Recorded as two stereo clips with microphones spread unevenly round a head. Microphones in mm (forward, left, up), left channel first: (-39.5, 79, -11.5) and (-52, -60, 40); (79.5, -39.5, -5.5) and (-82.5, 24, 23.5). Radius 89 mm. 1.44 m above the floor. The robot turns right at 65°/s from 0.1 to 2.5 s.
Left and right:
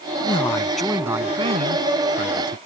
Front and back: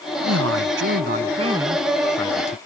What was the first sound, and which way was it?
A man speaking, 140° left.